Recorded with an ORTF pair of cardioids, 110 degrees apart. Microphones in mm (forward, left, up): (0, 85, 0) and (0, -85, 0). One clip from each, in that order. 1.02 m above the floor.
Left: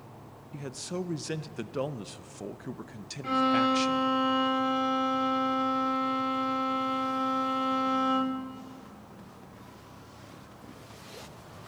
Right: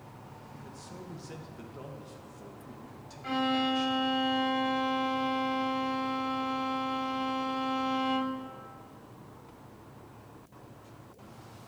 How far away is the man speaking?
About 0.6 m.